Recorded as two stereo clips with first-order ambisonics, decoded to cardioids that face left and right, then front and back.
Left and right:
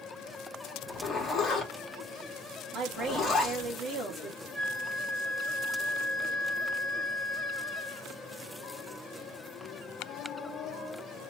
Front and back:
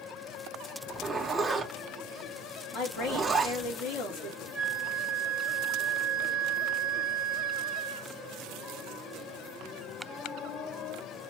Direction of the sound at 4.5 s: 80° right.